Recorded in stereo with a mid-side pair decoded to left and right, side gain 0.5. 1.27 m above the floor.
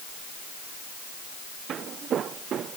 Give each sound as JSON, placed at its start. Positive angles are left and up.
{"t": 1.7, "sound": "footsteps", "azimuth_deg": -55}